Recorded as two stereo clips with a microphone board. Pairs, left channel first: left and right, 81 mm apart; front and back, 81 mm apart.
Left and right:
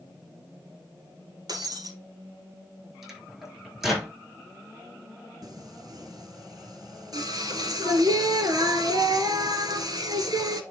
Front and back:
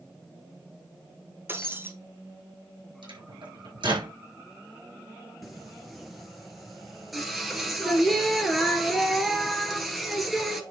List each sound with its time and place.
1.5 s breaking glass: 120° right, 1.8 m
3.0 s a microwave: 175° right, 6 m
5.4 s singing: 90° right, 1.8 m